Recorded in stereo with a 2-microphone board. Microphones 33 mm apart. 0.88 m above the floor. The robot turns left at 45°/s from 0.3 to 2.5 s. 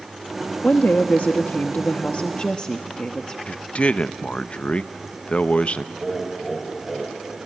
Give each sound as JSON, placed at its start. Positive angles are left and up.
{"t": 0.6, "sound": "a woman speaking", "azimuth_deg": 120, "distance_m": 0.9}
{"t": 3.5, "sound": "a man speaking", "side_deg": 45, "distance_m": 0.6}
{"t": 6.0, "sound": "laughter", "side_deg": 0, "distance_m": 4.0}